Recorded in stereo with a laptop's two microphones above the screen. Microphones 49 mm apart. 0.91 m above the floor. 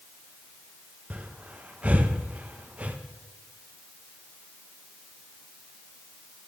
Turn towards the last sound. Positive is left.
turn(degrees=-30)  # may be behind; listen again after turning